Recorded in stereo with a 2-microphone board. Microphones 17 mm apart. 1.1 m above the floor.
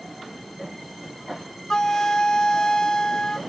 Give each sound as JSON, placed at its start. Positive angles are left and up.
{"t": 1.7, "sound": "a flute", "side_deg": 45, "distance_m": 0.5}